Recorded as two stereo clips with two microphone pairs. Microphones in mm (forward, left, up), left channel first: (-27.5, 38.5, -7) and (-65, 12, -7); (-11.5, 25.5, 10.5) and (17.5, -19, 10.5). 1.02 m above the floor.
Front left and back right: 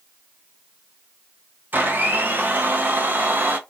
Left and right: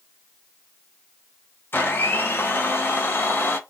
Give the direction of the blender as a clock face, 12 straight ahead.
6 o'clock.